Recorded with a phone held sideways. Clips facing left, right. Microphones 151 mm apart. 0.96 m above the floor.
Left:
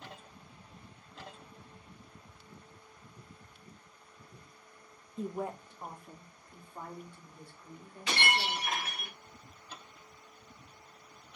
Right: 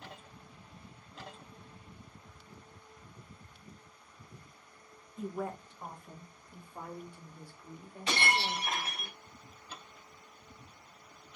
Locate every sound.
5.2 s a woman speaking: 30° left (ahead or behind), 0.7 m; by 9.1 s 15° right (ahead or behind), 3.5 m
8.1 s breaking glass: 30° right (ahead or behind), 3 m